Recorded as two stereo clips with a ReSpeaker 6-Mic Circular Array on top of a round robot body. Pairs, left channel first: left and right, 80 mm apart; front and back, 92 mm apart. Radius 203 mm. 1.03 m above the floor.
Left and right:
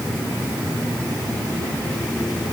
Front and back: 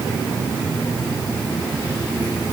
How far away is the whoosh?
I don't hear a whoosh.